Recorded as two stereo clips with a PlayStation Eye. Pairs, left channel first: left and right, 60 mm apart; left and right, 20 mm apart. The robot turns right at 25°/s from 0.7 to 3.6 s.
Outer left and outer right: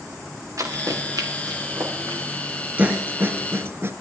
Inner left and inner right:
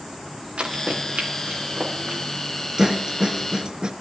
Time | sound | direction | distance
0.6 | running footsteps | 60° right (ahead or behind) | 3.5 m
2.8 | a snare drum | 25° right (ahead or behind) | 0.7 m